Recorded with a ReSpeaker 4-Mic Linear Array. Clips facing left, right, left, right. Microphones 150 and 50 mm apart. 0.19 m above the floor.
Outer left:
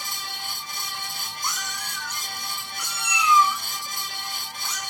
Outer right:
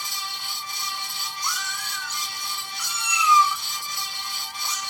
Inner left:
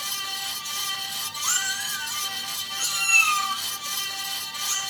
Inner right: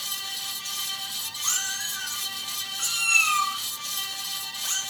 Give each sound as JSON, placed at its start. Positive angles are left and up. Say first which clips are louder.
{"t": 1.4, "sound": "a cat meowing", "louder": "outer left 1 dB, inner left 4 dB", "side_deg": 20, "distance_m": 3.5}